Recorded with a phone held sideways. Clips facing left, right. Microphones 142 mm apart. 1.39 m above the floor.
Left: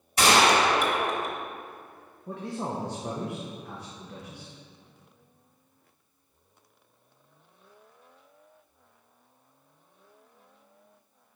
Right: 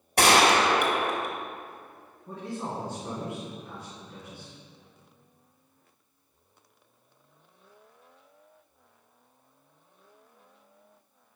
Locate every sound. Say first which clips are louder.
0.2 s a gunshot: even; 60° right (ahead or behind), 1.1 m
2.3 s a man speaking: left 2 dB; 70° left (ahead or behind), 1.0 m